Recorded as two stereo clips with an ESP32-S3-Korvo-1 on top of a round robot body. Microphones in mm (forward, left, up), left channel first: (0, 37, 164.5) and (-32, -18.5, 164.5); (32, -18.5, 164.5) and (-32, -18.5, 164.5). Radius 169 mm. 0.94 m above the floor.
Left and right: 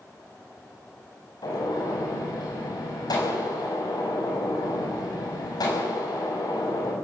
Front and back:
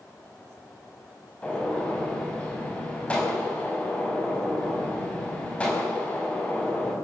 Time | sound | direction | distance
1.4 | a gunshot | 70° left | 6.5 m